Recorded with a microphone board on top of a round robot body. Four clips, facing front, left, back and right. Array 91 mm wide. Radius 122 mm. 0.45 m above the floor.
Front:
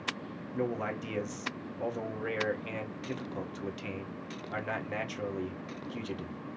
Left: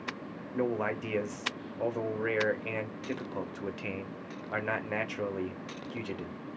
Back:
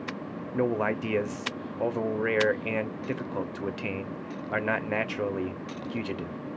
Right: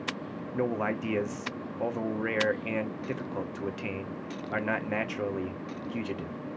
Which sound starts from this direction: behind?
A man speaking, at 0.5 s.